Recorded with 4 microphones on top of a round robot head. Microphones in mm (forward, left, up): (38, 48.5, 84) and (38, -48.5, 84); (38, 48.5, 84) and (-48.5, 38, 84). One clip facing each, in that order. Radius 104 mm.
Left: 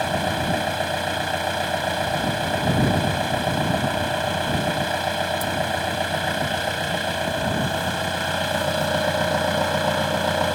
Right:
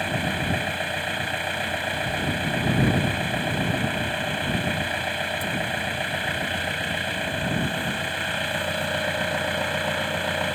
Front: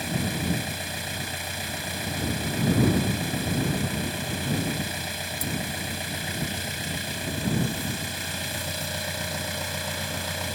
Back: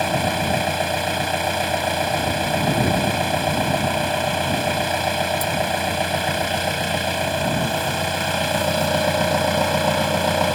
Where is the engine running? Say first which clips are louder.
Left 4 dB, back 9 dB; 160° left.